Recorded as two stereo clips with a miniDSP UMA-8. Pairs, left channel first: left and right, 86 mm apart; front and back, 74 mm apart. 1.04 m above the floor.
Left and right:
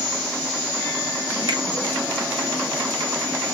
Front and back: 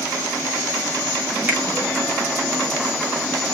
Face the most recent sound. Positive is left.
turn(degrees=-115)